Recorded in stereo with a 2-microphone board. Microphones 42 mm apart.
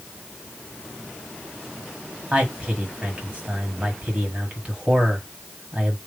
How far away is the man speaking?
About 1.5 m.